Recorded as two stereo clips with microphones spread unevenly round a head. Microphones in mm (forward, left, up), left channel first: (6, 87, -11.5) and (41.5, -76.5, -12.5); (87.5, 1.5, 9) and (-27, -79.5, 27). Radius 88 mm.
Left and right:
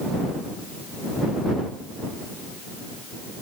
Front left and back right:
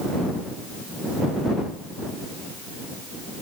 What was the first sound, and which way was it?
Only background noise.